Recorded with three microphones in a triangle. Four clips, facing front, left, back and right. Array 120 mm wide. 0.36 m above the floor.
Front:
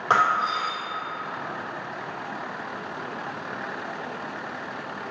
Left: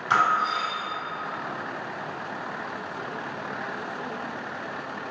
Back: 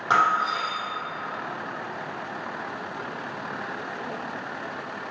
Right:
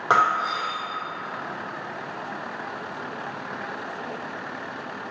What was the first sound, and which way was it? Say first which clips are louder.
Breaking glass: right 2 dB, even; 80° right.